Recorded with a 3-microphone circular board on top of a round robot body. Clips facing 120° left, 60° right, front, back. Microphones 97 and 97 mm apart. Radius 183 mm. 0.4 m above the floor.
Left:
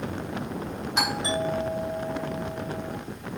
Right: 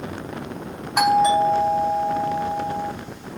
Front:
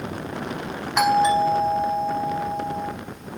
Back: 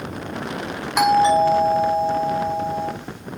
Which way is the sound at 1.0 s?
95° right.